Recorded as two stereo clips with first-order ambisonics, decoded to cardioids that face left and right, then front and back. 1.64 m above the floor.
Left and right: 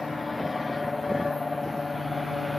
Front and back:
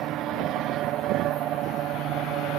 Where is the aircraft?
165° left.